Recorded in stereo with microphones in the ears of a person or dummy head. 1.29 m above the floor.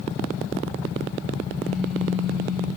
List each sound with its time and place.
1.6 s a phone buzzing: centre (ahead or behind), 8 m